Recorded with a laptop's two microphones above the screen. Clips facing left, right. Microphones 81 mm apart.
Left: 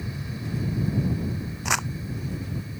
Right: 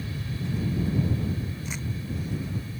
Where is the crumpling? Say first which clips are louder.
Left 8 dB; 90° left.